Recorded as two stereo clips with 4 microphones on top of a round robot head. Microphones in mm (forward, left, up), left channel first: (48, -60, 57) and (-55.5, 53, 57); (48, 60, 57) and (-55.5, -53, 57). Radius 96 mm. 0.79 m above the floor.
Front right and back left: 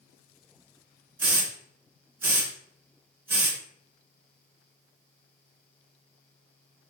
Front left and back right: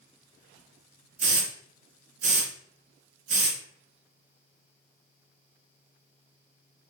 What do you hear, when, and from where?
1.2 s a hiss: 155° right, 0.6 m